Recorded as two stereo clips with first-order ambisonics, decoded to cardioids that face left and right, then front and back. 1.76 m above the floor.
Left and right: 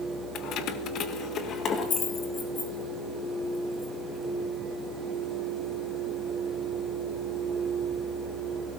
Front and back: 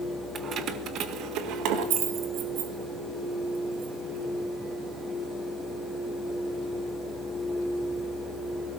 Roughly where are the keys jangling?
Behind left.